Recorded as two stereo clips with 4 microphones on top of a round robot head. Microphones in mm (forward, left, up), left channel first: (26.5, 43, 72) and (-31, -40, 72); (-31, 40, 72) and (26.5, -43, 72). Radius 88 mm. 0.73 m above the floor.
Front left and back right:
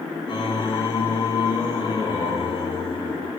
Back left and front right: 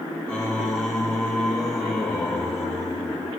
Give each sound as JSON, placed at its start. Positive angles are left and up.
{"t": 0.3, "sound": "singing", "azimuth_deg": 40, "distance_m": 1.1}